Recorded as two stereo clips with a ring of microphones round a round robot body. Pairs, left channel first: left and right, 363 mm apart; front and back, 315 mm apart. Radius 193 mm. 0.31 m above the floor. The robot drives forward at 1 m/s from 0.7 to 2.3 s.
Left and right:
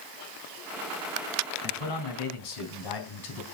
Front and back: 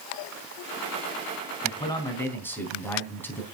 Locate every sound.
1.6 s a man speaking: 70° left, 3.5 m; by 3.4 s 85° left, 3.5 m